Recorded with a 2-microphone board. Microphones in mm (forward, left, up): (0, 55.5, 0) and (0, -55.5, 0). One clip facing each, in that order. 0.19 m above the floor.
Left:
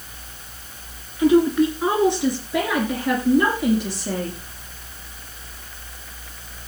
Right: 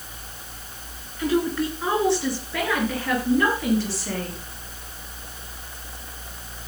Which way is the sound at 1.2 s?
20° left (ahead or behind).